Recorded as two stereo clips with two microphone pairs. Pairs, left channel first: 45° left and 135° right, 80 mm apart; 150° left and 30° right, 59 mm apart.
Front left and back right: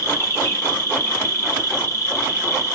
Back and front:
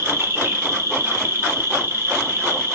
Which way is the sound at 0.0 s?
5° left.